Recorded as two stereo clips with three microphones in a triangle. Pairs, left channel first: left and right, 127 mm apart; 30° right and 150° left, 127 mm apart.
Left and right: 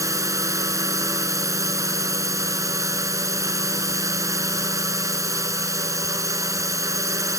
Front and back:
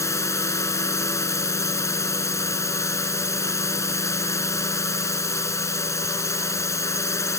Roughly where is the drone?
Ahead right.